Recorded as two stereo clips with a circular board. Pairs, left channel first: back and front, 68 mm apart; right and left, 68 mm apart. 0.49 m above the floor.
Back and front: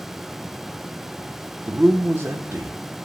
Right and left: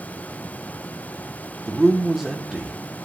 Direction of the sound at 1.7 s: 10° left.